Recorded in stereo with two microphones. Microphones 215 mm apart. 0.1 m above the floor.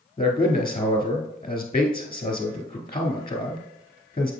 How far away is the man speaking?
About 1.2 m.